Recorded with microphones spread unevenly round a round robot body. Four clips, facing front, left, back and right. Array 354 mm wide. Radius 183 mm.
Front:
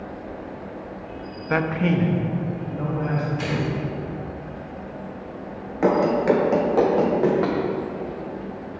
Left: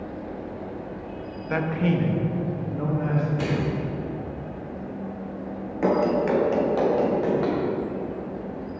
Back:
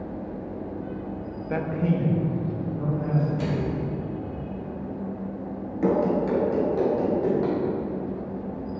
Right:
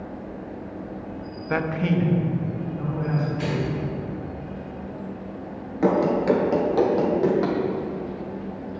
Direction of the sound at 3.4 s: 100° left.